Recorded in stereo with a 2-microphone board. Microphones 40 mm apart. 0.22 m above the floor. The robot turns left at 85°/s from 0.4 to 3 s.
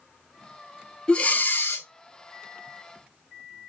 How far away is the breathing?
About 0.6 m.